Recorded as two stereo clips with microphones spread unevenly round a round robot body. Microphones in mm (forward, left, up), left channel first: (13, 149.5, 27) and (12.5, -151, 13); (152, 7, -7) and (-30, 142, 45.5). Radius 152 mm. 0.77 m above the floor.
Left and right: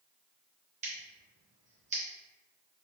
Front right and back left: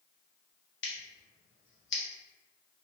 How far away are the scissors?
About 1.0 m.